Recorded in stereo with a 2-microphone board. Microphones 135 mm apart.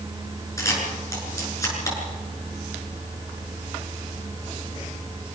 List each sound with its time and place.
0.6 s a camera shutter: 25° left (ahead or behind), 8 m